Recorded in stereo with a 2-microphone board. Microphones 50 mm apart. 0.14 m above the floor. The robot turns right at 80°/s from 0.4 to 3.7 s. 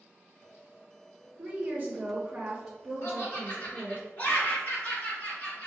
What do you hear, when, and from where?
1.4 s a woman speaking: 115° right, 1.8 m; by 4.0 s 70° left, 1.8 m
3.0 s laughter: 50° left (ahead or behind), 1.9 m; by 5.7 s 35° left (ahead or behind), 1.9 m